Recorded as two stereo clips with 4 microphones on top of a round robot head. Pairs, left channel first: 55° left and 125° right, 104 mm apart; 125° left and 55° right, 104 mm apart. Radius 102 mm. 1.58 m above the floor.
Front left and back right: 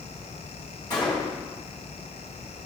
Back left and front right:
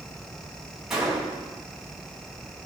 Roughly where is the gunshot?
Ahead left.